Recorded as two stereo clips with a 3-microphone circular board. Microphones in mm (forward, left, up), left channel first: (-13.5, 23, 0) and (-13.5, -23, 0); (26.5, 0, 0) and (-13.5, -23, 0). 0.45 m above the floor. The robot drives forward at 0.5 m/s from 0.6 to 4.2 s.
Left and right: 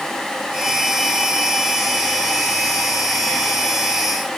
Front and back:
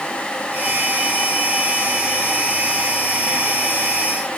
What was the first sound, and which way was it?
Only background noise.